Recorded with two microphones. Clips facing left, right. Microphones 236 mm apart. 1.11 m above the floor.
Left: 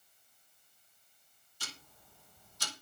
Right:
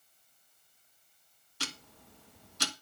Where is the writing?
No writing in this recording.